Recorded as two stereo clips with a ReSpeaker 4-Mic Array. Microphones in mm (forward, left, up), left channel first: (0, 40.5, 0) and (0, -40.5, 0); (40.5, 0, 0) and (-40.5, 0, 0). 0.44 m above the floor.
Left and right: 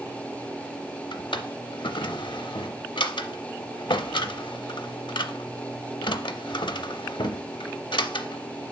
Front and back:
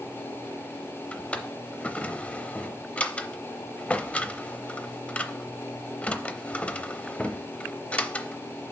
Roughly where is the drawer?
Left.